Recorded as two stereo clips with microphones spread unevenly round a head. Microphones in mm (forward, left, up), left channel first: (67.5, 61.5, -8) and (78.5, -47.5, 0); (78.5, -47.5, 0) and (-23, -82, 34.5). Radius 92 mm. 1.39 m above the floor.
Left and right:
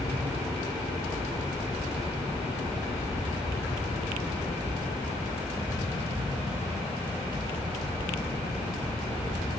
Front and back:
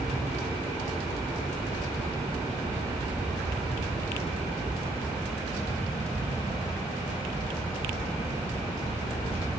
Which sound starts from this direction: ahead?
A fan, at 0.0 s.